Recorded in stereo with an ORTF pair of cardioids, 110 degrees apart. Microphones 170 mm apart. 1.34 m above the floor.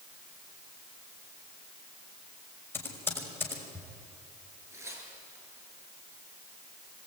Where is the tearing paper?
15° right, 9 m.